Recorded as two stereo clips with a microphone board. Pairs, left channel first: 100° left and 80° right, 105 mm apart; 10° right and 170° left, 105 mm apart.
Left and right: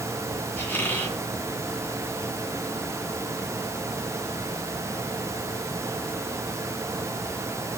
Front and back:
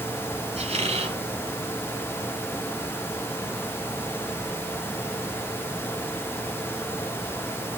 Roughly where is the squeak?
Behind.